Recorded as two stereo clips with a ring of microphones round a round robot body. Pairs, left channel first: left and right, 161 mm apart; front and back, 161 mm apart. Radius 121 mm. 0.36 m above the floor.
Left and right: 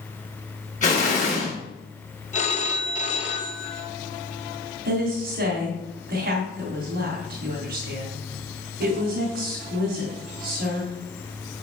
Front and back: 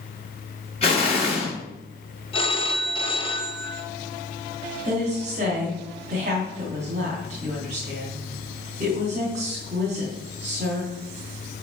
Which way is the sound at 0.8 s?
50° left.